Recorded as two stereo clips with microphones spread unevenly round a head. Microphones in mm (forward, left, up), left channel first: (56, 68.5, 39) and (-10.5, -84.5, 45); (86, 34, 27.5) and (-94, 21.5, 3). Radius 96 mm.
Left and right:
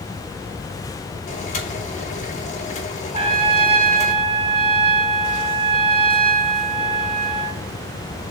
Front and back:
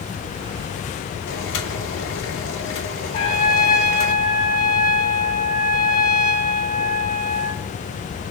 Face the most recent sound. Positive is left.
turn(degrees=-55)